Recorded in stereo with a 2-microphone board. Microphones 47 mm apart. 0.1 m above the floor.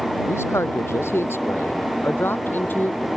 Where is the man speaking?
70° left (ahead or behind); by 3.1 s 40° left (ahead or behind).